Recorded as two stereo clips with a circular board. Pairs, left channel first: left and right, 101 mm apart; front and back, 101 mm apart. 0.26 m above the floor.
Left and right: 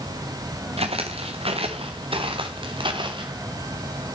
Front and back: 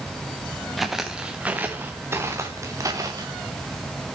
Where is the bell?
No bell in this recording.